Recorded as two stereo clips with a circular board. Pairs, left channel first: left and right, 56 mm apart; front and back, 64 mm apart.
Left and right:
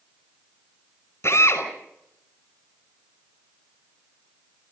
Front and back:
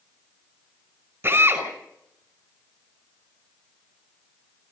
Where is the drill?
125° left, 5.5 m.